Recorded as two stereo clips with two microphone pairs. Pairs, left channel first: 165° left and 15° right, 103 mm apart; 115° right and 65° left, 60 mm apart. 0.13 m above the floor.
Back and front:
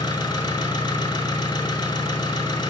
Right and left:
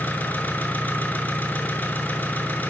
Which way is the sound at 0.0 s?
165° right.